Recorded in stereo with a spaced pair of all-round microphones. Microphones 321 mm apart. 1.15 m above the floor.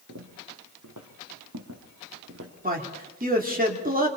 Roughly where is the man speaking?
Right.